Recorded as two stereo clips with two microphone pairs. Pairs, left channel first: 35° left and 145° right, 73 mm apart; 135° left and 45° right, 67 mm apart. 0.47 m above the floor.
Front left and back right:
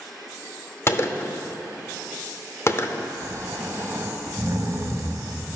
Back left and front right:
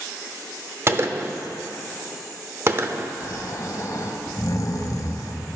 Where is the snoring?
165° left, 1.1 m.